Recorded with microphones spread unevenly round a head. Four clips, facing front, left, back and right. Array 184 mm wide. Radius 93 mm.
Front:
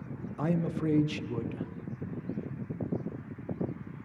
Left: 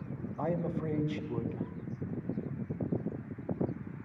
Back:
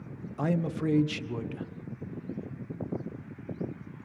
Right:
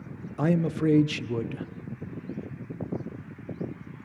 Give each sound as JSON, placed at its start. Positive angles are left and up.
{"t": 0.4, "sound": "a man speaking", "azimuth_deg": -105, "distance_m": 1.3}